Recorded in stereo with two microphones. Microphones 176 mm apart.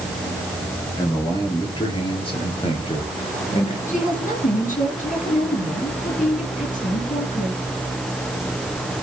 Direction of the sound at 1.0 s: 25° left (ahead or behind).